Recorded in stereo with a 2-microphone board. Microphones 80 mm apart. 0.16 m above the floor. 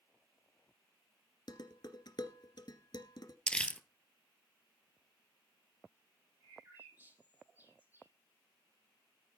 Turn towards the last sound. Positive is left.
turn(degrees=-25)  # may be behind; listen again after turning